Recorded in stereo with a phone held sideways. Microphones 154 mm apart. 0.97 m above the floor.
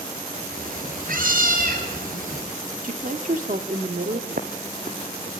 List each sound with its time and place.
0.5 s a cat meowing: 65° right (ahead or behind), 6 m
2.8 s a woman speaking: 60° right (ahead or behind), 1.9 m
4.3 s footsteps: 65° right (ahead or behind), 2.5 m